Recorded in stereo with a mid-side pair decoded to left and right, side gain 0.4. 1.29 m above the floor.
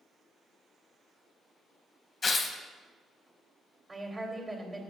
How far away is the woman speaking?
About 2.5 m.